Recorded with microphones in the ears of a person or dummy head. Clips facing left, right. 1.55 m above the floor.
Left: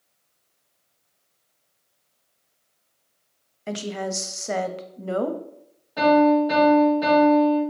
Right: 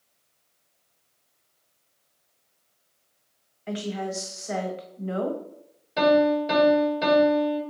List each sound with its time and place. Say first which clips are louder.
3.7 s a woman speaking: left 1 dB; 45° left (ahead or behind), 0.5 m
6.0 s a piano: left 3 dB; 30° right (ahead or behind), 1.8 m